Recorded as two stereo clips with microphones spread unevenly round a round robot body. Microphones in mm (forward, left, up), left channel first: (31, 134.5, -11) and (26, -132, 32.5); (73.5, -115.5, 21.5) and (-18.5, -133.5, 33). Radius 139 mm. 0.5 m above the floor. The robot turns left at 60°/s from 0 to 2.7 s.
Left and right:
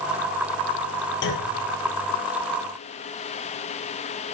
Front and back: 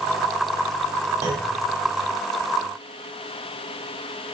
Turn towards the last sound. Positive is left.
turn(degrees=35)